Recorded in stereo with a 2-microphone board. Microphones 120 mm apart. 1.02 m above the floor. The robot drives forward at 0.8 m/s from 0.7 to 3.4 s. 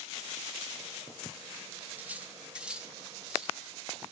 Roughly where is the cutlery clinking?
Centre.